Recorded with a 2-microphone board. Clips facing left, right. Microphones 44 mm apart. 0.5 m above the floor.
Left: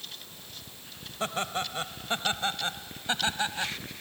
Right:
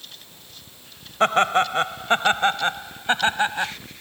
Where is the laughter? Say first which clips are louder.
Right 13 dB; 60° right (ahead or behind); by 3.7 s 35° right (ahead or behind).